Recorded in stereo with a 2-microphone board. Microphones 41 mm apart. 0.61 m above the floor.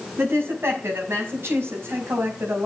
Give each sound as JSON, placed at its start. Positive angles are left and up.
{"t": 0.2, "sound": "a woman speaking", "side_deg": -75, "distance_m": 6.0}